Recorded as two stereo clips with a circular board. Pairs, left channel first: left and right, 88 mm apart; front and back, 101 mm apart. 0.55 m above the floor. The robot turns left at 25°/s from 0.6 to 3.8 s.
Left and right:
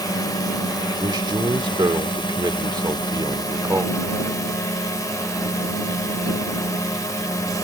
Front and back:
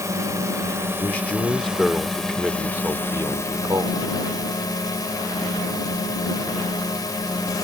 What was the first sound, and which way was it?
A drone, 125° left.